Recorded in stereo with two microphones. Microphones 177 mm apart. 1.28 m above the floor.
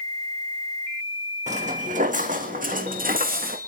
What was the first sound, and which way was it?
Footsteps, 40° right (ahead or behind).